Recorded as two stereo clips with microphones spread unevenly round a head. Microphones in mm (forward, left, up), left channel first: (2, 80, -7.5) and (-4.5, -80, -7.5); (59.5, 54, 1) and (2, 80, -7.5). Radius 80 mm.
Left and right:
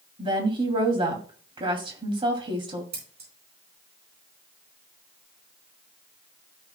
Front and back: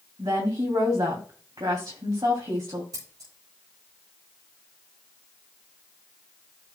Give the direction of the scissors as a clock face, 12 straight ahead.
5 o'clock.